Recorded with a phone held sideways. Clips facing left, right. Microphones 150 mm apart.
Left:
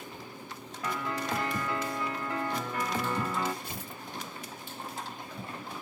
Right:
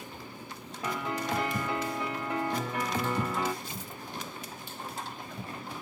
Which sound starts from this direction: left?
Tearing paper, at 3.6 s.